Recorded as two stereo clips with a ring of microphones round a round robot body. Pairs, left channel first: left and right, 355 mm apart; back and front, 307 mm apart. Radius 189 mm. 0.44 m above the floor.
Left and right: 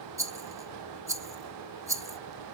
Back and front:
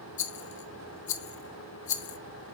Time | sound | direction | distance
0.2 | a rattle | 170° right | 0.9 m